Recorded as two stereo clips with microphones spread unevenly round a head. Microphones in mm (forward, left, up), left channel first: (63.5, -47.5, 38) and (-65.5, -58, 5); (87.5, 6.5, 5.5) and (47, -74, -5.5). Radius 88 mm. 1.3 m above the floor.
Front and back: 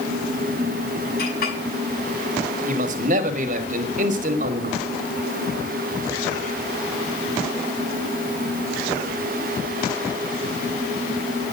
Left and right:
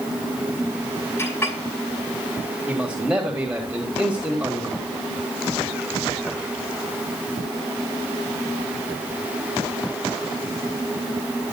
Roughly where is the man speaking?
Behind.